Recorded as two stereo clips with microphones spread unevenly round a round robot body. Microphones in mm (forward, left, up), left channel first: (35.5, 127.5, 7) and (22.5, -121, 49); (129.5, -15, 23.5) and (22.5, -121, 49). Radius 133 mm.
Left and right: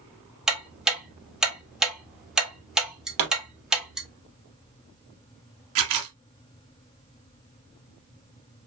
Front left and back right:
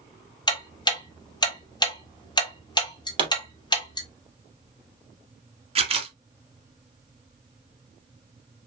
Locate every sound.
0.5 s ticking: straight ahead, 1.7 m
3.2 s a pop: 80° right, 3 m
5.8 s a camera shutter: 85° right, 1.8 m